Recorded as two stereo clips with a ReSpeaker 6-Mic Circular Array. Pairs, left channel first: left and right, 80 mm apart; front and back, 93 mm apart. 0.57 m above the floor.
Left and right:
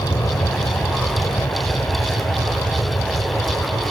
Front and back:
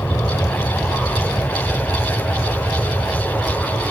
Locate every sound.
0.0 s an aircraft: 60° left; by 3.9 s 80° left